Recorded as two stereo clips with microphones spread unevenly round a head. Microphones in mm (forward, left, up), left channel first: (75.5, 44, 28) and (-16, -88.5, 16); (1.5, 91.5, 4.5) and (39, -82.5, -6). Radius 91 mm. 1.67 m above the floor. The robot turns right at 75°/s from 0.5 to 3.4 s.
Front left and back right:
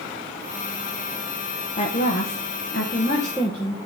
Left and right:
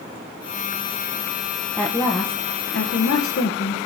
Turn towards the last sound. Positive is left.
turn(degrees=135)